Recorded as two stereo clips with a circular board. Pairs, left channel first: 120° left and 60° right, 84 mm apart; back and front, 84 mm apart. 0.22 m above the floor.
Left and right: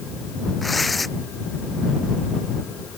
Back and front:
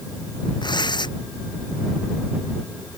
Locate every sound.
0.6 s tearing paper: 150° right